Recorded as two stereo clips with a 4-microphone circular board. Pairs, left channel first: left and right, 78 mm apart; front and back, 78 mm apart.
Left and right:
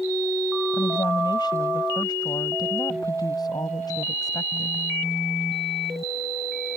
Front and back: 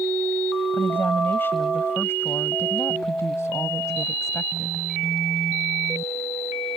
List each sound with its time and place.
0.7 s a woman speaking: 65° left; by 4.9 s 50° left